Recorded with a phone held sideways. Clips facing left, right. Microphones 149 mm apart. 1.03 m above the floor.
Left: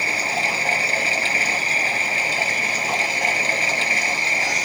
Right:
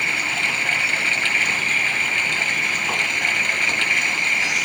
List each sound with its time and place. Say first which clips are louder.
0.0 s running water: left 4 dB; 35° left (ahead or behind)